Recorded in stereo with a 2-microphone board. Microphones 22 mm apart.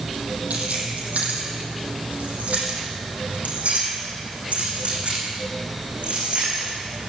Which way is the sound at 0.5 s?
70° right (ahead or behind).